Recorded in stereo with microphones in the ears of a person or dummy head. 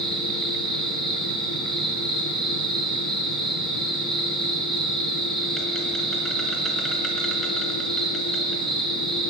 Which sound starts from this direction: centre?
An insect, at 0.0 s.